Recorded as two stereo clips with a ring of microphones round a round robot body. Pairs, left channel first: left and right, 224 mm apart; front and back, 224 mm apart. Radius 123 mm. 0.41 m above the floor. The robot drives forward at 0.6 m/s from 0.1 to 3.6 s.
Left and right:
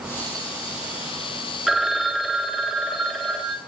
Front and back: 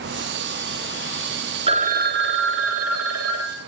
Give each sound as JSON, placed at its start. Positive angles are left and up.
{"t": 1.7, "sound": "a phone ringing", "azimuth_deg": -175, "distance_m": 0.5}